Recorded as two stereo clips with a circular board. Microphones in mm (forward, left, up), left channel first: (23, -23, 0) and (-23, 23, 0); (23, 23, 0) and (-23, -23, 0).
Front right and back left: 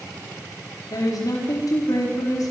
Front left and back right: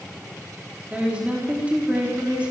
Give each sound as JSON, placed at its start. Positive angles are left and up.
{"t": 0.9, "sound": "a woman speaking", "azimuth_deg": -65, "distance_m": 4.5}